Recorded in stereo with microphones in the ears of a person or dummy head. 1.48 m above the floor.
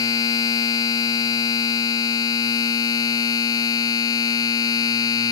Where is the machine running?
25° left (ahead or behind).